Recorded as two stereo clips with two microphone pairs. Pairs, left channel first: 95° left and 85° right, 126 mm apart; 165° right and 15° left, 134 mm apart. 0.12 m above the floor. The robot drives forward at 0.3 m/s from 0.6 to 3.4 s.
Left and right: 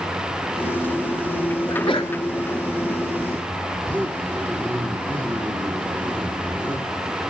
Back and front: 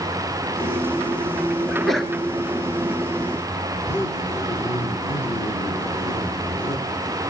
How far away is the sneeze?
About 2 m.